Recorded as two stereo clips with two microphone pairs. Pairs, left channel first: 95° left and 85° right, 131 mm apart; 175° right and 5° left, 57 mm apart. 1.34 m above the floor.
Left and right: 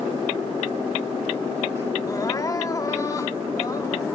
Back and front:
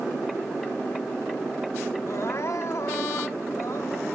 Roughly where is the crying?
Behind left.